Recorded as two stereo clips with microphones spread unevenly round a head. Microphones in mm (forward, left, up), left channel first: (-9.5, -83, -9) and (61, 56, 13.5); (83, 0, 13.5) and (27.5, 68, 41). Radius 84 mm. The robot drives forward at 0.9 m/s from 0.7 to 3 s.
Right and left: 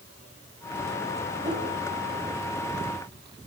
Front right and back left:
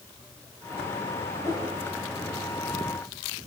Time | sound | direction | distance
1.4 | a whoosh | straight ahead | 6 m